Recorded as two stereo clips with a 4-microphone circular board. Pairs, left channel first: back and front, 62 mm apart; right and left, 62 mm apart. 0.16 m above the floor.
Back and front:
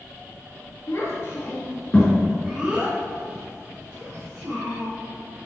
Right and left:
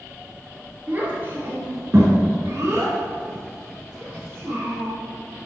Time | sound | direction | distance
0.9 | a child speaking | 150° left | 2.5 m